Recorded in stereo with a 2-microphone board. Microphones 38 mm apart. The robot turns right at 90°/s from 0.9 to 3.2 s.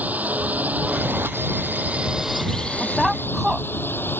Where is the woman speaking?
155° left; by 3.7 s 170° right.